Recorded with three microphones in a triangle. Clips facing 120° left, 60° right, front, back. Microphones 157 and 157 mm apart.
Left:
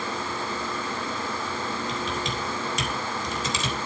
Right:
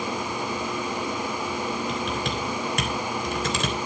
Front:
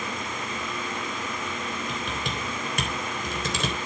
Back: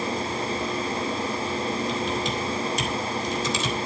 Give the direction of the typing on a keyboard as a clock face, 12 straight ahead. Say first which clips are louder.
Right 2 dB, back 6 dB; 1 o'clock.